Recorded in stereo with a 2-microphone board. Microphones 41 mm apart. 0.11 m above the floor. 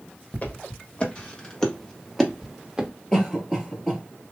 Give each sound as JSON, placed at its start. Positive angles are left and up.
{"t": 0.3, "sound": "footsteps", "side_deg": 35, "distance_m": 1.9}
{"t": 3.1, "sound": "a cough", "side_deg": 15, "distance_m": 2.0}